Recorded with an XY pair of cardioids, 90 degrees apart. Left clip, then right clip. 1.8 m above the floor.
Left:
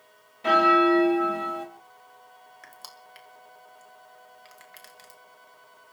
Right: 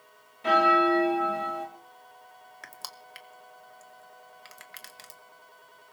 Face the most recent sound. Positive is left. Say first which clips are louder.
# right 5 dB
turn(degrees=-45)